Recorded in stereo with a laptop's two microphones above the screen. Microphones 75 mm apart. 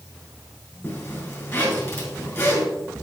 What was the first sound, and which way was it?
A zipper, 35° left (ahead or behind).